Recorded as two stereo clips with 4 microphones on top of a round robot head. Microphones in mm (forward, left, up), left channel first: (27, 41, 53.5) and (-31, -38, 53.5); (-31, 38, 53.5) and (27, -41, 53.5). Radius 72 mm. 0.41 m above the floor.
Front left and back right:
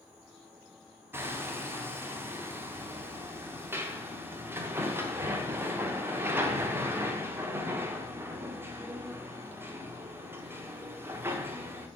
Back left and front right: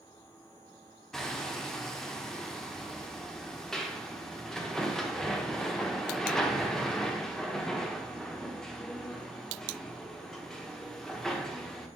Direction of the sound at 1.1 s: 155° right.